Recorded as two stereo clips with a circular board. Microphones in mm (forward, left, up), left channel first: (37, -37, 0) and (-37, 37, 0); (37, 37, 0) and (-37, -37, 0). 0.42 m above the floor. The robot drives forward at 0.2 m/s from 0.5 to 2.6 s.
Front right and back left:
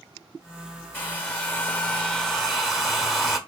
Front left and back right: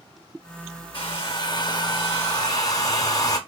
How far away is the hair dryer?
About 0.7 m.